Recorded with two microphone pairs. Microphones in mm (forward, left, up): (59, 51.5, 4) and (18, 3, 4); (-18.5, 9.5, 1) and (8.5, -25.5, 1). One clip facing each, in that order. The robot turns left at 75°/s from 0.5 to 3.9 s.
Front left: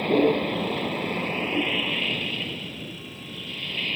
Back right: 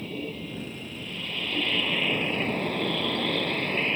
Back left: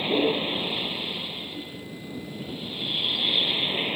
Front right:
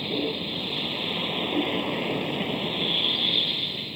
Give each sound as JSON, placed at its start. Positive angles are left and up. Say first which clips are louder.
{"t": 0.0, "sound": "a vehicle", "louder": "front left 14 dB, back left 5 dB", "azimuth_deg": 65}